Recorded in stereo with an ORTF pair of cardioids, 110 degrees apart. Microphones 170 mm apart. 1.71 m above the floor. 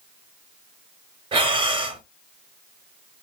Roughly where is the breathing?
Ahead right.